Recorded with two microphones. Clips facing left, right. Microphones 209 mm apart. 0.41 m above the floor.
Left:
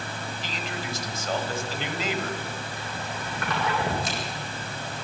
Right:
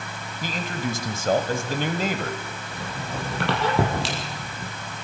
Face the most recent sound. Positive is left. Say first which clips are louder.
# right 3 dB
turn(degrees=-80)